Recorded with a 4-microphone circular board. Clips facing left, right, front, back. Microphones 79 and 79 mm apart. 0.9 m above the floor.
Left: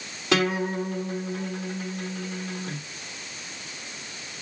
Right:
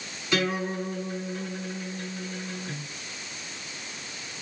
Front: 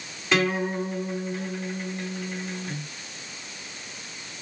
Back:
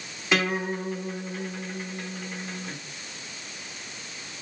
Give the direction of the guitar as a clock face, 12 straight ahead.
9 o'clock.